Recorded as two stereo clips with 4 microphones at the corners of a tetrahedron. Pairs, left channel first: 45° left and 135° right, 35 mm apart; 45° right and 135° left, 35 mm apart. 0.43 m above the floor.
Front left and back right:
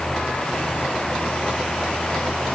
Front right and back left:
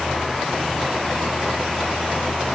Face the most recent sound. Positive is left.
No sound to turn to.